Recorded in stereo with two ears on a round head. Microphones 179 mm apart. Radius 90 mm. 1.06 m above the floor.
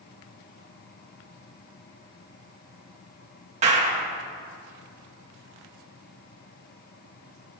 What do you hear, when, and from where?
3.6 s a clap: 35° right (ahead or behind), 1.9 m